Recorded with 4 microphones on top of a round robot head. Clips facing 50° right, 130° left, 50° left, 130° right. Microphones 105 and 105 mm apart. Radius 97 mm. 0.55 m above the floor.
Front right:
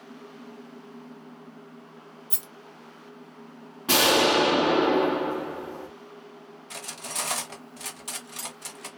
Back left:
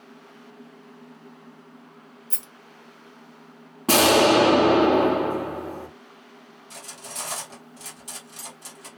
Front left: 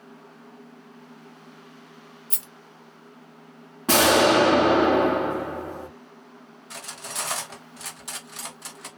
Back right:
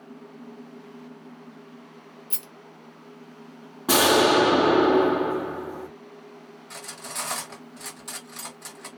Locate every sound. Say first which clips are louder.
2.3 s a rattle: front right 2 dB, back right 2 dB; 20° left, 0.9 m
3.9 s an explosion: back left 5 dB, front left 1 dB; 150° left, 0.7 m
6.7 s cutlery clinking: front right 3 dB, front left 1 dB; 40° right, 0.7 m